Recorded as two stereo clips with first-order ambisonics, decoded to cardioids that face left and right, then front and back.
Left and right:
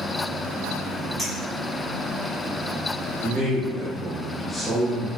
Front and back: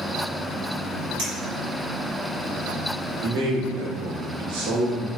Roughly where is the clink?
Behind.